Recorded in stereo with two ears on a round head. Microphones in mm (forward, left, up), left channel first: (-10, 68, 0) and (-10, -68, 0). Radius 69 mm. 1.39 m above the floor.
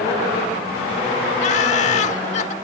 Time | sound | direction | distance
1.4 | laughter | 50° left (ahead or behind) | ?